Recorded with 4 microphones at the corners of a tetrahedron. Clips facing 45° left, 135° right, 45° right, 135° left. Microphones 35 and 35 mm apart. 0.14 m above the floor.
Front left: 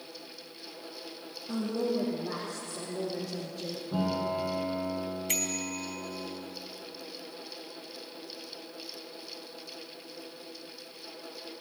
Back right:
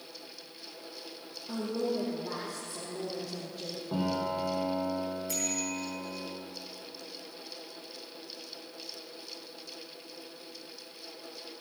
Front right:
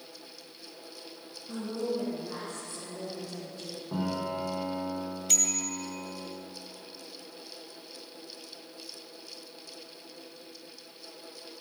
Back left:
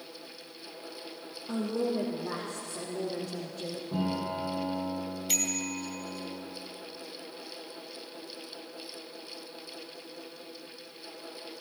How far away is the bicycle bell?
About 2 m.